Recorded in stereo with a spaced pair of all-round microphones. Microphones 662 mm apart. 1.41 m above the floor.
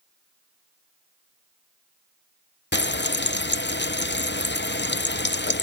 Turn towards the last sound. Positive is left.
turn(degrees=20)  # may be behind; listen again after turning